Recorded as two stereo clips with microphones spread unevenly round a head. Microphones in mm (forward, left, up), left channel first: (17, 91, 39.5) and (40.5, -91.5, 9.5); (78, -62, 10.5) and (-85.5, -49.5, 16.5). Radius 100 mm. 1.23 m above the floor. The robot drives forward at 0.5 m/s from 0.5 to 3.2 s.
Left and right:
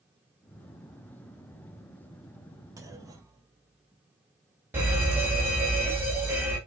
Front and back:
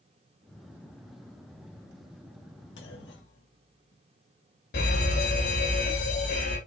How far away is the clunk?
About 1.7 m.